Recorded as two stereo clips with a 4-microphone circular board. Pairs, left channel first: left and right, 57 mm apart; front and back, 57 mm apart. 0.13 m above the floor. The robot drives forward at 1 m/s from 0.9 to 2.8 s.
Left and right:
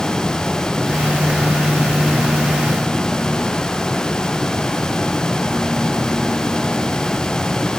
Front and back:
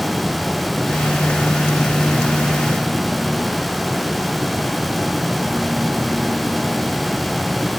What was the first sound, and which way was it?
Only background noise.